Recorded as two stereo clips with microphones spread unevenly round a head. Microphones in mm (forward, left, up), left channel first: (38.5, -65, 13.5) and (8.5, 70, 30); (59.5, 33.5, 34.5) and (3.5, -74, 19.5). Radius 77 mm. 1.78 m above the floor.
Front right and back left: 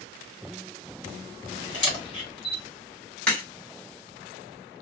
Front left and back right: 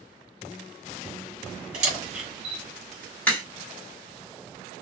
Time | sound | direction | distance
1.7 | a camera shutter | 130° right | 1.4 m
3.3 | a crack | 10° left | 1.7 m